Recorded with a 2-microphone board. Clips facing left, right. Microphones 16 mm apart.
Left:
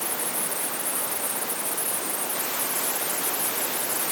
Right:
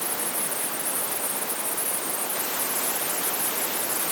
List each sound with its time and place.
Only background noise.